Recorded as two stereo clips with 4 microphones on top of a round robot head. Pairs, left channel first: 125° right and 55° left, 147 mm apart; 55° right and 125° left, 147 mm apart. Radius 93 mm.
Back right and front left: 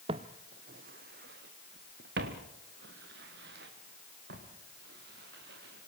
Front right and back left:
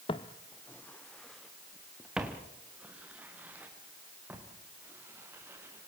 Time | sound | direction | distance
0.1 | footsteps | straight ahead | 0.9 m